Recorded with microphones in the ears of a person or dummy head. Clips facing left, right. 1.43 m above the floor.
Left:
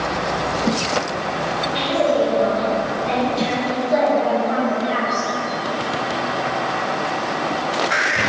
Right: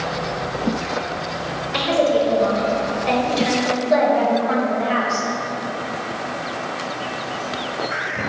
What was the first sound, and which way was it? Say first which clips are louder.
A woman speaking: right 1 dB; 80° right.